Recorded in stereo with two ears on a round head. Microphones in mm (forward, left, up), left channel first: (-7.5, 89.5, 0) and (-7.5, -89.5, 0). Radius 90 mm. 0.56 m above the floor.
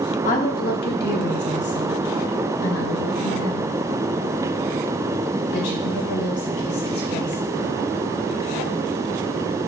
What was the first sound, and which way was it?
A woman speaking, 40° left (ahead or behind).